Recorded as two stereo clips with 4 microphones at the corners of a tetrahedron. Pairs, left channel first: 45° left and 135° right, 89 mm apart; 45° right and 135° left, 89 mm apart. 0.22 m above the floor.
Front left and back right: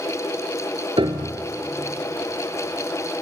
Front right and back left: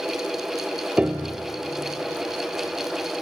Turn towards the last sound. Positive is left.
turn(degrees=-150)